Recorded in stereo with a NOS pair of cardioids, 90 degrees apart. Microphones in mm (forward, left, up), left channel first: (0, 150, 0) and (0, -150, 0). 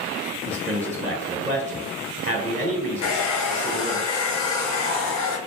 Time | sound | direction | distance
0.5 | a man speaking | 25° right | 0.7 m
3.0 | a hair dryer | 65° left | 0.7 m